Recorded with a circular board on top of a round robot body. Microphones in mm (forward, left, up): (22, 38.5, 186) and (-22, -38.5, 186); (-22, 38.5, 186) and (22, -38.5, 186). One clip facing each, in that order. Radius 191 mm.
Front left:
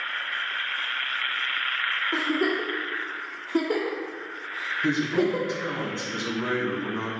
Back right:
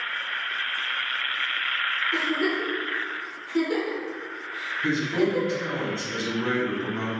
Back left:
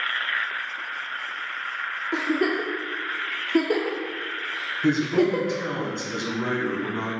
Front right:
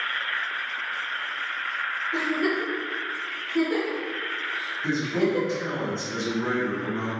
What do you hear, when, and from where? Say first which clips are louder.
2.1 s a giggle: front left 1 dB, back left 2 dB; 110° left, 0.6 m
4.8 s a man speaking: even, back left 4 dB; 130° left, 1.6 m